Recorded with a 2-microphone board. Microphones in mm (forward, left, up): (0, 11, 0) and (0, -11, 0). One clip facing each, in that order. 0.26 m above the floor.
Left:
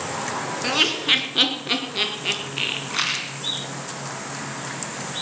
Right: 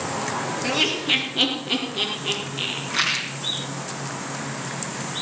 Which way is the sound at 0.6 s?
30° left (ahead or behind).